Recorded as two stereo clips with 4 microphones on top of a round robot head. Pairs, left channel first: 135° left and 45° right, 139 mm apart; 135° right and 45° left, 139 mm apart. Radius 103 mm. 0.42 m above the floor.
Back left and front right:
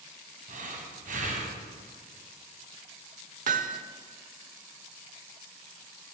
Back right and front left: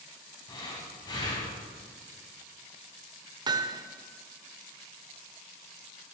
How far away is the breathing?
About 1.5 m.